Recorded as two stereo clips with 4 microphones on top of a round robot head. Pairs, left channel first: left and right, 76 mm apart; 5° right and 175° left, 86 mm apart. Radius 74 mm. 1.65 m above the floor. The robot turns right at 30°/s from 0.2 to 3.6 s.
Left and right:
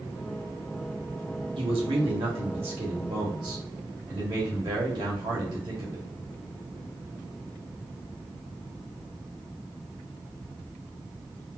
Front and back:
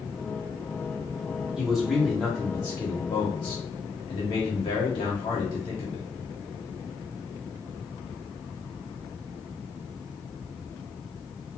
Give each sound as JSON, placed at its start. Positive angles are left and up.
{"t": 1.6, "sound": "a man speaking", "azimuth_deg": -100, "distance_m": 1.2}